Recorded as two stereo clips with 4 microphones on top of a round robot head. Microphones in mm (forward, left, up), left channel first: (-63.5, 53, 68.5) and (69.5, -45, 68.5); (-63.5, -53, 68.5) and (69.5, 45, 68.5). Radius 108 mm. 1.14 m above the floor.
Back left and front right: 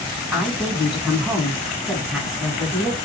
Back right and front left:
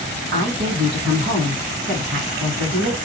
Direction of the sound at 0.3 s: 50° left.